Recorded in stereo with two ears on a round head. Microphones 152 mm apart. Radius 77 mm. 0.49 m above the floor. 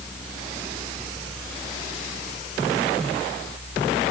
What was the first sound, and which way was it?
Only background noise.